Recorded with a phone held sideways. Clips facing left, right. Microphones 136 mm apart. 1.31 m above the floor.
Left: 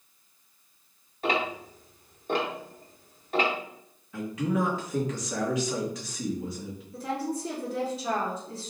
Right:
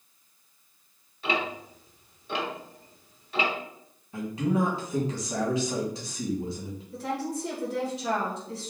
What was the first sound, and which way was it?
Ticking, 45° left (ahead or behind).